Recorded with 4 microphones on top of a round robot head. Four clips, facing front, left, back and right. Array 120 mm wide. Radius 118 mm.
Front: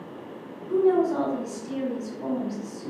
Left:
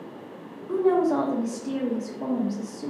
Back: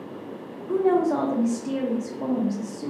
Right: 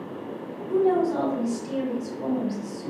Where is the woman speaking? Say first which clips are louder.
Even, even; 145° left, 0.8 m.